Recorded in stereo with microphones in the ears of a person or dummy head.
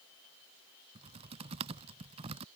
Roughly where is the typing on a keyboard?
Right.